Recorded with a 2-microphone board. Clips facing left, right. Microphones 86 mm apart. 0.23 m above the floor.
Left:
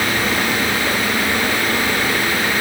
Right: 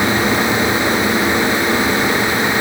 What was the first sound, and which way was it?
Only background noise.